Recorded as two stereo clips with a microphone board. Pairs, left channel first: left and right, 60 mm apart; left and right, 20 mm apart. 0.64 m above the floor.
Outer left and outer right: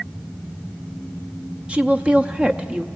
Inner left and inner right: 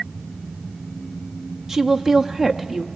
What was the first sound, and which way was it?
A woman speaking, 20° right (ahead or behind).